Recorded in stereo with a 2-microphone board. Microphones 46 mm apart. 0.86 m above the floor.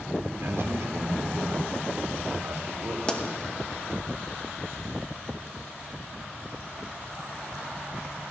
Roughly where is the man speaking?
Right.